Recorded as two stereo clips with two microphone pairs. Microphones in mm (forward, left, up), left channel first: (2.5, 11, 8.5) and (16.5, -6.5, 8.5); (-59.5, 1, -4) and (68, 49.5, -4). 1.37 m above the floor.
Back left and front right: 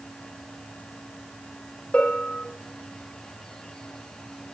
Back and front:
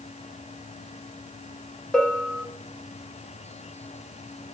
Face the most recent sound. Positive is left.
turn(degrees=115)